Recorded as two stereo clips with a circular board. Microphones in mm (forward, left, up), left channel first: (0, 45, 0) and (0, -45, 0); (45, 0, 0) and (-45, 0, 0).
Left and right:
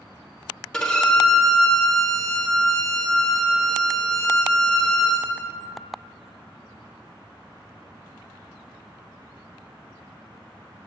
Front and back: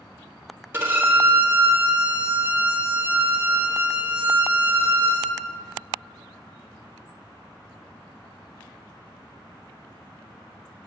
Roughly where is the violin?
Behind.